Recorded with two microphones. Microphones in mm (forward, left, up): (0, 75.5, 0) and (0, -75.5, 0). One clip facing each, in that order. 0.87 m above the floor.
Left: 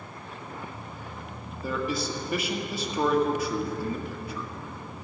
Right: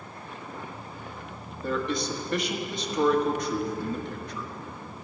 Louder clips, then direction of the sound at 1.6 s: Right 1 dB; 5° left (ahead or behind).